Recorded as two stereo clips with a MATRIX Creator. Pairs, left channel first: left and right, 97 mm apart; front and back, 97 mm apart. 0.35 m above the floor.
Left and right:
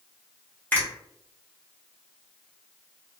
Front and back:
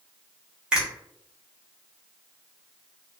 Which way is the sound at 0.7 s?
120° left.